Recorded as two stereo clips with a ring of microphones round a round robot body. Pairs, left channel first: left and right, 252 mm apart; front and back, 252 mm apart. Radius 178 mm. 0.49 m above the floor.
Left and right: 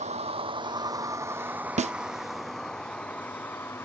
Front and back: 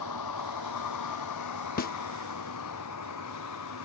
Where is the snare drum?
35° right.